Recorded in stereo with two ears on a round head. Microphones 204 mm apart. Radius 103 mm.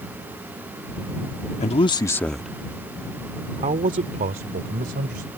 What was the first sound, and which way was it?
A man speaking, 30° left (ahead or behind).